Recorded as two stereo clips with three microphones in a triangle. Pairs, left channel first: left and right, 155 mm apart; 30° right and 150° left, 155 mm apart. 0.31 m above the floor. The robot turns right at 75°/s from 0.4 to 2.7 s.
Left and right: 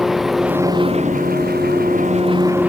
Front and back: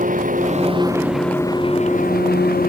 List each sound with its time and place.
0.0 s an engine running: straight behind; by 2.7 s 5° right